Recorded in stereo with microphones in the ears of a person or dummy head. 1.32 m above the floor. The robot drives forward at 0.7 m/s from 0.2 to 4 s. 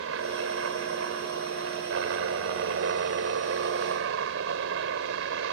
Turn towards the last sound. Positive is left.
turn(degrees=-65)  # may be behind; listen again after turning